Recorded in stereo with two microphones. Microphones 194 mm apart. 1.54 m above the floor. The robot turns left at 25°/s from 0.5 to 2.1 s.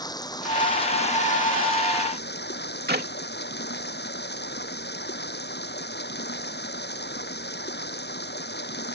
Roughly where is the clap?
Right.